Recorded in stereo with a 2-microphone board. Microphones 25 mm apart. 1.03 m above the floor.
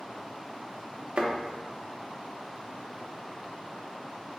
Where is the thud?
40° right (ahead or behind), 0.7 m.